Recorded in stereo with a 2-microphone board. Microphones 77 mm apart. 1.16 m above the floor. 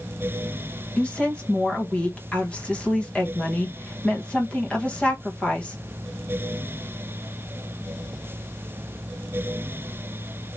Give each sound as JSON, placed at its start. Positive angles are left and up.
{"t": 1.0, "sound": "a woman speaking", "side_deg": 15, "distance_m": 1.3}